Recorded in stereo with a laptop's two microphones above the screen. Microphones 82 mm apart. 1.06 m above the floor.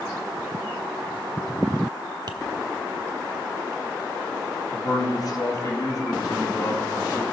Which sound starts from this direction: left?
A man speaking, at 4.7 s.